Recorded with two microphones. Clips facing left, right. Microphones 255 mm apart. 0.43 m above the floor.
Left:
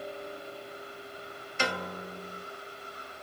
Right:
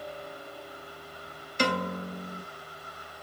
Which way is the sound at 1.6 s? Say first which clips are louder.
Right 6 dB; 40° right (ahead or behind).